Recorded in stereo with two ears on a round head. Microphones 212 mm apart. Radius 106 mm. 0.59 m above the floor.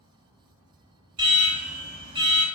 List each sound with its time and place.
1.2 s an alarm: 20° right (ahead or behind), 2.0 m